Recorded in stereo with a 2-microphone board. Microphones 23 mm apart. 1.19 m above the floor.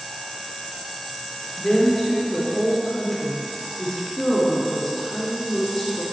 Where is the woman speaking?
10° left (ahead or behind), 2 m.